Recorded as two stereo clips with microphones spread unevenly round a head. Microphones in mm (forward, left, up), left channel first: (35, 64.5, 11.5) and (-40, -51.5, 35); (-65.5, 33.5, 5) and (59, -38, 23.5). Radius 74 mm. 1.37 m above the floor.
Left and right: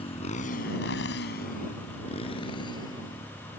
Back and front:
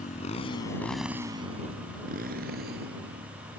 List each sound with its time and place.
0.0 s a motorcycle: 110° left; by 3.6 s 15° right